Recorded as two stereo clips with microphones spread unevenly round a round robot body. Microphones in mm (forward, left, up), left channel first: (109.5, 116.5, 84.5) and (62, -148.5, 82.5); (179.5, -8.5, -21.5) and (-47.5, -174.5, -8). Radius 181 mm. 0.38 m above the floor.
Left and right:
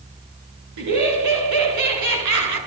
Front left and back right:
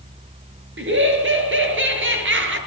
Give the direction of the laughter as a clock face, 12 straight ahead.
3 o'clock.